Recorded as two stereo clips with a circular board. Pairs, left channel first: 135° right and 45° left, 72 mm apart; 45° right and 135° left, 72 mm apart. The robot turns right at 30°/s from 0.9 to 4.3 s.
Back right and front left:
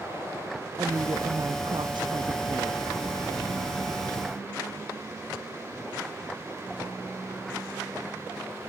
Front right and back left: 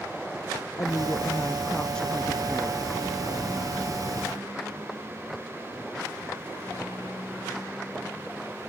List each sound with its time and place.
0.8 s a woman speaking: straight ahead; by 2.9 s 60° left